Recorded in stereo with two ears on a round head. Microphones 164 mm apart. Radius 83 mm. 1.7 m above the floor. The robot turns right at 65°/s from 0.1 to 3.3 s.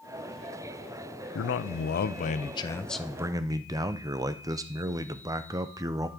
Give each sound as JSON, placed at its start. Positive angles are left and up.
{"t": 1.4, "sound": "a man speaking", "azimuth_deg": 75, "distance_m": 0.5}